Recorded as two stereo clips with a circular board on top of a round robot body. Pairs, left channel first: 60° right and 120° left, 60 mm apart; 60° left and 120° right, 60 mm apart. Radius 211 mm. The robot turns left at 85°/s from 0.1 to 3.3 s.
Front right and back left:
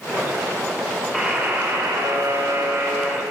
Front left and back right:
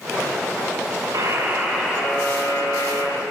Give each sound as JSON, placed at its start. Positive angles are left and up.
{"t": 1.1, "sound": "a buzzer", "azimuth_deg": -145, "distance_m": 4.0}